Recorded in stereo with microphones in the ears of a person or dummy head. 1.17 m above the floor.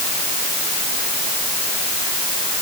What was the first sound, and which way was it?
Only background noise.